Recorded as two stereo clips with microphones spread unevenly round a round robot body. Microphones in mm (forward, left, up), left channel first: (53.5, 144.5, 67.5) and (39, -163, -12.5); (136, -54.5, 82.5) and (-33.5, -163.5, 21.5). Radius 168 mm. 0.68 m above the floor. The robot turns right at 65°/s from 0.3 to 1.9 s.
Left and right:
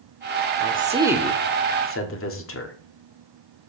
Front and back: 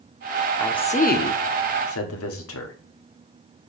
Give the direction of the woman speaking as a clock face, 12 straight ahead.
2 o'clock.